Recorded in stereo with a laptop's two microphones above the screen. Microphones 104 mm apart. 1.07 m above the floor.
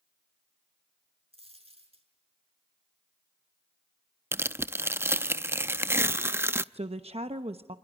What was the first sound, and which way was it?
A dropped coin, 70° right (ahead or behind).